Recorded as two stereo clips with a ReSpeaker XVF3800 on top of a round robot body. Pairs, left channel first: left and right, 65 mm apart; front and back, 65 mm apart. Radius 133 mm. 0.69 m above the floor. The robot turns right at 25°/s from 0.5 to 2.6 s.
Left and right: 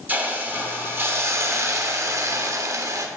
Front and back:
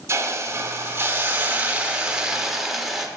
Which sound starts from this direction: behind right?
A hiss, at 0.1 s.